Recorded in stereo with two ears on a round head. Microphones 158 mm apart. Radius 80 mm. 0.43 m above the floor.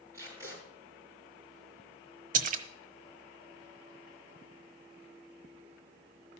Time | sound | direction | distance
0.1 | tape being pulled | 20° right (ahead or behind) | 5.5 m
2.3 | a splash | 50° right (ahead or behind) | 0.9 m